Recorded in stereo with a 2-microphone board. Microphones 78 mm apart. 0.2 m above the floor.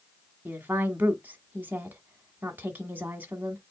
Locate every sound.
0.5 s a woman speaking: 25° right (ahead or behind), 1.3 m